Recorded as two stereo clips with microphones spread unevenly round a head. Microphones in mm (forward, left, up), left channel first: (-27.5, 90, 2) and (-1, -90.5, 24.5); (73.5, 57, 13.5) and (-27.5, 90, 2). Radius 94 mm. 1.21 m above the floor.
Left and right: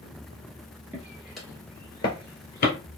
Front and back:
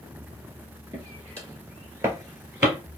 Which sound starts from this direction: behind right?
Footsteps, at 0.9 s.